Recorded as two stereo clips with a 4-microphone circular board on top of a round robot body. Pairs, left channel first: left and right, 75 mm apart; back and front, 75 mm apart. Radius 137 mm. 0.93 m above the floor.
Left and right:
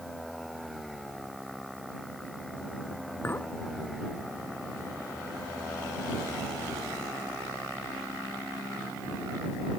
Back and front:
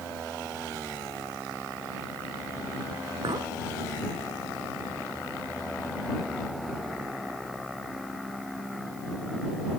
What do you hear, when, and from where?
3.2 s a clink: 25° left